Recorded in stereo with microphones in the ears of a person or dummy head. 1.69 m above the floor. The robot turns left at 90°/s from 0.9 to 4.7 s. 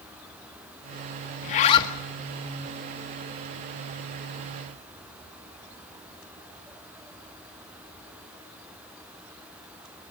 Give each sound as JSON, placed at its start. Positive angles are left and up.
{"t": 1.4, "sound": "a zipper", "azimuth_deg": 65, "distance_m": 1.2}